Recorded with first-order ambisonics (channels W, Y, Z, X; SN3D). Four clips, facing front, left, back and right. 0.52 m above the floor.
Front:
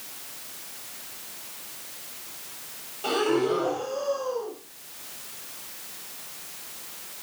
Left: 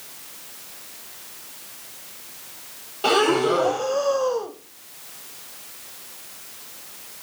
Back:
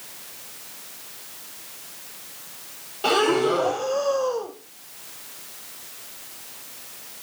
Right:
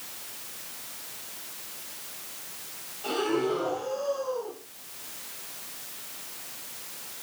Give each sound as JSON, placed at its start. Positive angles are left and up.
{"t": 3.0, "sound": "breathing", "azimuth_deg": 120, "distance_m": 1.2}